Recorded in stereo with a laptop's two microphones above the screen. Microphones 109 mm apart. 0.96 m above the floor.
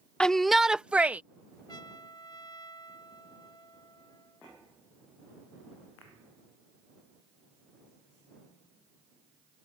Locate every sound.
0.2 s a shout: 10° left (ahead or behind); by 1.2 s 15° right (ahead or behind)
1.7 s a trumpet: 45° left (ahead or behind)